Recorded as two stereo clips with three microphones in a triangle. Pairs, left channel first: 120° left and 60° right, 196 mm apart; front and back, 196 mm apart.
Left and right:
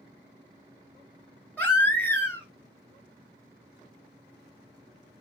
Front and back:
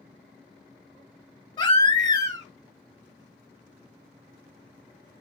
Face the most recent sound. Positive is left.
turn(degrees=50)